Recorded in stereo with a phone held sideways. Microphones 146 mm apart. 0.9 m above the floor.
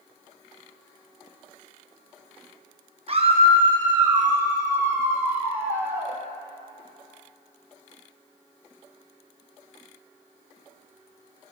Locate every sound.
3.1 s a scream: 45° right (ahead or behind), 0.9 m; by 6.2 s 15° right (ahead or behind), 3 m